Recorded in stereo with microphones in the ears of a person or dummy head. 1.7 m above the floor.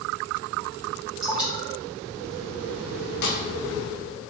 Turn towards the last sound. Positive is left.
turn(degrees=55)  # may be behind; listen again after turning